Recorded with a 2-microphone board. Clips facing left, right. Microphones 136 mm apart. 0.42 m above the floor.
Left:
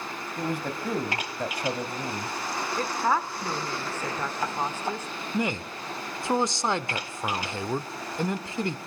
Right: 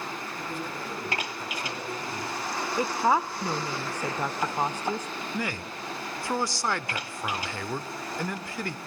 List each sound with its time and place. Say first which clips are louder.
0.4 s a man speaking: left 8 dB; 60° left (ahead or behind), 3.5 m; by 2.4 s 55° left (ahead or behind), 3 m
2.8 s a woman speaking: right 2 dB; 15° right (ahead or behind), 0.8 m
5.3 s a man speaking: left 6 dB; 20° left (ahead or behind), 0.8 m